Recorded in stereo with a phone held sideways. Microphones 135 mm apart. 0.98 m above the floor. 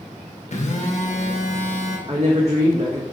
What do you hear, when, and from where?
0.5 s a phone buzzing: 60° left (ahead or behind), 0.7 m
2.1 s a woman speaking: 50° right (ahead or behind), 0.8 m